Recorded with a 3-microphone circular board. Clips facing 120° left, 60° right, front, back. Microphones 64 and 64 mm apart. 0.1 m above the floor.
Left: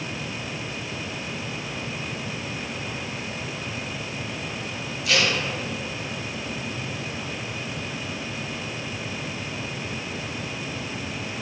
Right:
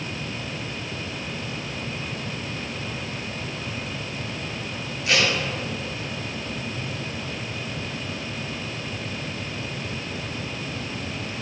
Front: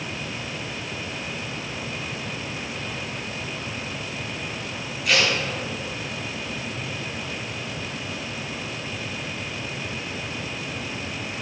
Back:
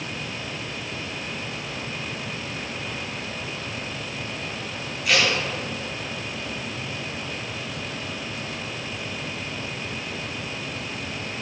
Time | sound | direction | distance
5.0 | tape being pulled | 95° right | 1.4 m